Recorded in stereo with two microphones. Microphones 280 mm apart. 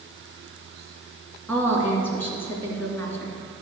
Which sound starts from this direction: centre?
A woman speaking, at 1.5 s.